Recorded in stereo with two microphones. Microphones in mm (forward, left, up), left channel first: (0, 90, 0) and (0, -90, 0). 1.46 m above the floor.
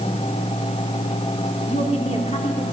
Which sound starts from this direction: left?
A woman speaking, at 1.7 s.